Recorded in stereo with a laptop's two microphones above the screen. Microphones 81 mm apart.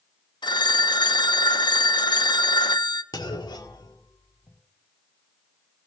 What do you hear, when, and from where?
0.4 s a phone ringing: 65° left (ahead or behind), 0.6 m
3.1 s a clunk: 60° left (ahead or behind), 1.8 m